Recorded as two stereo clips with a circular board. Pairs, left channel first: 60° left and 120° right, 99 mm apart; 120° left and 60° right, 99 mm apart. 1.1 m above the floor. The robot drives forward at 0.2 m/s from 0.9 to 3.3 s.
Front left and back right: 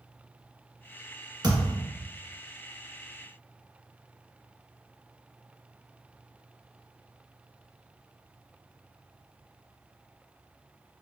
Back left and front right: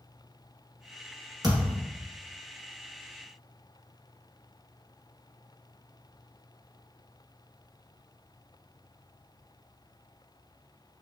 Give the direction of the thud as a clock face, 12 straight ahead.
3 o'clock.